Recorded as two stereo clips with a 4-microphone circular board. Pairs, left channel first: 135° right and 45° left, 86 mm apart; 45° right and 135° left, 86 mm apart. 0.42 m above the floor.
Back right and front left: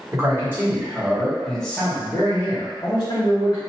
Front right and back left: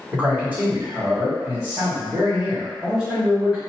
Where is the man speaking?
75° left, 1.4 m; by 3.6 s 150° right, 2 m.